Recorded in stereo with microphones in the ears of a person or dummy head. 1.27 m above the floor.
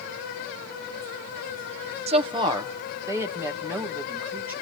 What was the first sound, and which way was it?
A woman speaking, 30° right (ahead or behind).